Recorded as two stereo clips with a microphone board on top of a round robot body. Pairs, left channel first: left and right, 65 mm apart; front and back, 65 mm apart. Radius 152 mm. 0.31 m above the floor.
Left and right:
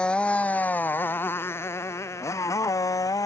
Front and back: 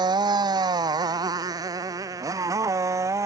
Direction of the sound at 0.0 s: 165° left.